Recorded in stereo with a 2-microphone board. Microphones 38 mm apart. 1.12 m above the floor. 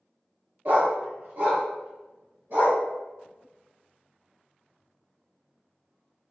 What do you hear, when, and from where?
0.7 s a dog barking: 60° right (ahead or behind), 1.0 m